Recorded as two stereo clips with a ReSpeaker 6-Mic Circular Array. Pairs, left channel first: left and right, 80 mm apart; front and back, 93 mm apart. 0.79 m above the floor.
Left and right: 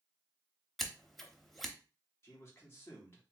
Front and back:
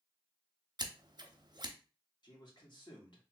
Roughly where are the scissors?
Behind.